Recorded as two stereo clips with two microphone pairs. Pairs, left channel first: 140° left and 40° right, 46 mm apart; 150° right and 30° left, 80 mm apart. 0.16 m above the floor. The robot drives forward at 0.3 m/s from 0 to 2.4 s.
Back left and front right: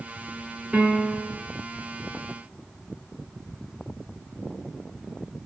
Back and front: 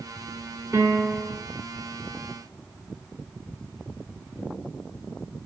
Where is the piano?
25° left, 1.8 m; by 1.4 s 35° left, 1.7 m.